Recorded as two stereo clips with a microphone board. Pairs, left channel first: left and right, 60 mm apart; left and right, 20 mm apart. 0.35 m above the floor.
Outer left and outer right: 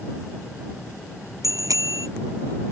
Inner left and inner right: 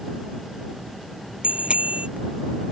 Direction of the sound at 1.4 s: 80° right.